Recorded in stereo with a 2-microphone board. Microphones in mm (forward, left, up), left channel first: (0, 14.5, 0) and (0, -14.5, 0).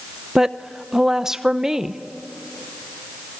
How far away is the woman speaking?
About 0.8 m.